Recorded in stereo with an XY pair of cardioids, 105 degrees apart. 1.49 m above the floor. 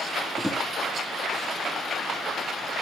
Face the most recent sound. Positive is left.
turn(degrees=10)